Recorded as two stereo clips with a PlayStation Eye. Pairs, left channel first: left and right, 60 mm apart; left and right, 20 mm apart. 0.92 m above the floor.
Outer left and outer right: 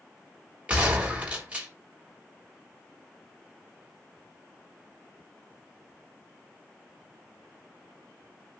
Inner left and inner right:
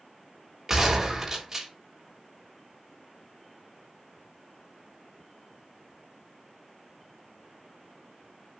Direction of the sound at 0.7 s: 25° right (ahead or behind).